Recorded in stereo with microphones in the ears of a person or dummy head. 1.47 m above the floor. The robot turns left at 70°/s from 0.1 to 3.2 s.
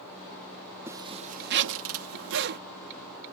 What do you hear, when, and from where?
0.9 s a zipper: 10° right; by 2.6 s 135° right